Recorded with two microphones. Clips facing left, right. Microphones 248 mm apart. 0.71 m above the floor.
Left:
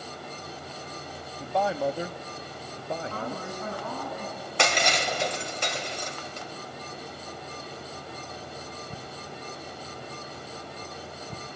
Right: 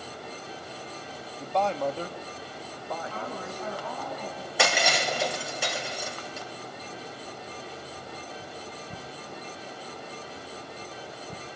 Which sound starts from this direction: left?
A woman speaking, at 3.1 s.